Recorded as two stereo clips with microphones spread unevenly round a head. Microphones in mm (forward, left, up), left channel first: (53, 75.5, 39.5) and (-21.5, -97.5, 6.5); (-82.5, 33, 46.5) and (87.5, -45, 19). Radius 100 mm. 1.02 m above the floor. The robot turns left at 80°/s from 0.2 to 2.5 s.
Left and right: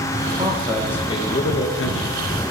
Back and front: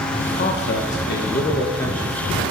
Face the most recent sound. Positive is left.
turn(degrees=25)